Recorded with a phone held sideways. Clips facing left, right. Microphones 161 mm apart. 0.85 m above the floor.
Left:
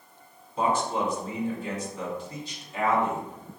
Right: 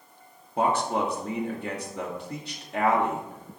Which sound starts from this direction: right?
A man speaking, at 0.6 s.